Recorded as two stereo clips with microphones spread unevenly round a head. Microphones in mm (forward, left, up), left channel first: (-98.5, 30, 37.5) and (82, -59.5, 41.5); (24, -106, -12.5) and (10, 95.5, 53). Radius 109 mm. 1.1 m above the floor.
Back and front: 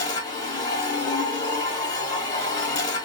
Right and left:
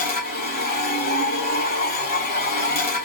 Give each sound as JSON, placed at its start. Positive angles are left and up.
{"t": 0.0, "sound": "a machine running", "azimuth_deg": -140, "distance_m": 1.0}